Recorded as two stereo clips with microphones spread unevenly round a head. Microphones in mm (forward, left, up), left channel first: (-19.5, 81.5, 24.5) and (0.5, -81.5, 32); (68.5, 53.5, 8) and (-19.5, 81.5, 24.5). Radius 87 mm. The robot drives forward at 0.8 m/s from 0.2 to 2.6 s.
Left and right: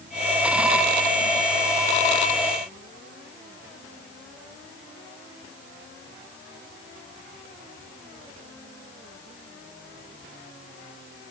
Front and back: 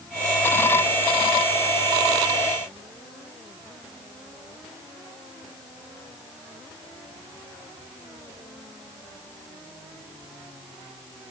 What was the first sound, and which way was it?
Only background noise.